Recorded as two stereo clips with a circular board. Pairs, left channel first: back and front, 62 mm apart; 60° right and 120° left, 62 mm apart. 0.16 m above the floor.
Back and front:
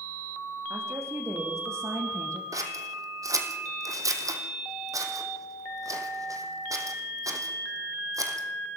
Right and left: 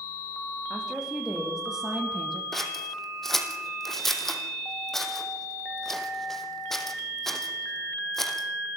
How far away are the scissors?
About 3 m.